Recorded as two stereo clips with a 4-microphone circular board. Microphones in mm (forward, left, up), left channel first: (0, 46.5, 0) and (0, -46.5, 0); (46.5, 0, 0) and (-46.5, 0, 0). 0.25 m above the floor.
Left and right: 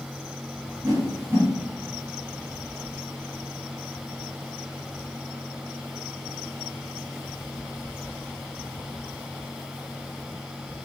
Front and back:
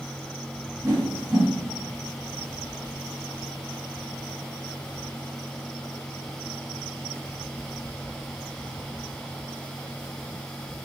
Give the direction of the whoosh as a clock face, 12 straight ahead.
4 o'clock.